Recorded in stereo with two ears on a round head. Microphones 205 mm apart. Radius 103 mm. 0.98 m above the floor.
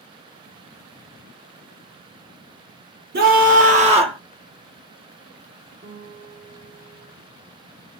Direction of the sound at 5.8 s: 55° right (ahead or behind).